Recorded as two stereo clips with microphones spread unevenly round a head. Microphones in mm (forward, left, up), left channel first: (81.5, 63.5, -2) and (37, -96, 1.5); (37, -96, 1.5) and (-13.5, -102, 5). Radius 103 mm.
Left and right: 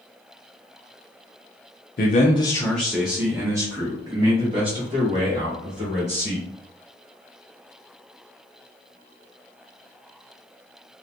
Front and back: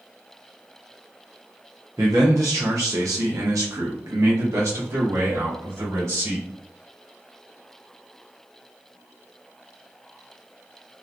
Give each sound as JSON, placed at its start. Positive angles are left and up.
{"t": 2.0, "sound": "a man speaking", "azimuth_deg": 120, "distance_m": 0.5}